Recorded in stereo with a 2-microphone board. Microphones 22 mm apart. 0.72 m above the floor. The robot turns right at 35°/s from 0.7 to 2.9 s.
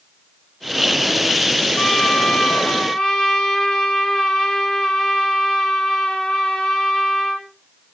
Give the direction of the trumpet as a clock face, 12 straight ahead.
9 o'clock.